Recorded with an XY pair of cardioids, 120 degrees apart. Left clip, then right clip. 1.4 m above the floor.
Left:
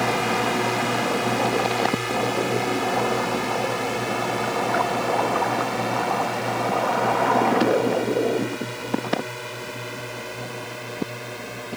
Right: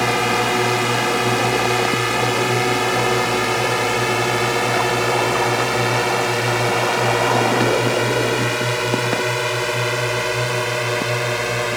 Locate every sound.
0.0 s a drone: 35° right; by 11.8 s 70° right